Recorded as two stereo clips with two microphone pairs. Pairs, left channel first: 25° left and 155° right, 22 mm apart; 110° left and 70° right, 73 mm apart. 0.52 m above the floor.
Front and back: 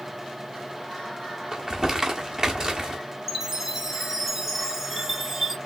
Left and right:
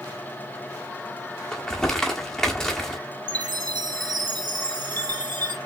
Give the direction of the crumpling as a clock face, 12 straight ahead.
6 o'clock.